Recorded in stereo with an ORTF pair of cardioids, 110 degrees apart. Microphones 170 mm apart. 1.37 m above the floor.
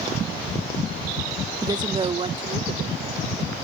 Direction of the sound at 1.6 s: 20° right.